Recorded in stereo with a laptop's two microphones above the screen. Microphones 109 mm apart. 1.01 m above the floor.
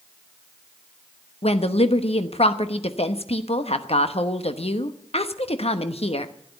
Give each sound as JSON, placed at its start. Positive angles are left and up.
{"t": 1.4, "sound": "a woman speaking", "side_deg": 75, "distance_m": 1.0}